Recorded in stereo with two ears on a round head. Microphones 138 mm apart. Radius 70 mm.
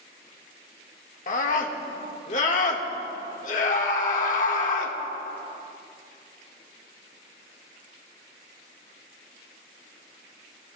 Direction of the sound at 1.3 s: 55° left (ahead or behind).